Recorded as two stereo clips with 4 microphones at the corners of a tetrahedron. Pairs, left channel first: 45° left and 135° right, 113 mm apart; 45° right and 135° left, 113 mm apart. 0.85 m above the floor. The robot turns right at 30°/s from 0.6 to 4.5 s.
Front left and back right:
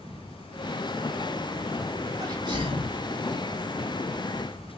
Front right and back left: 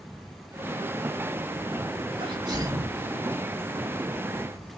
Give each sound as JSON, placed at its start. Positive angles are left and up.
{"t": 2.2, "sound": "a sneeze", "azimuth_deg": 175, "distance_m": 1.7}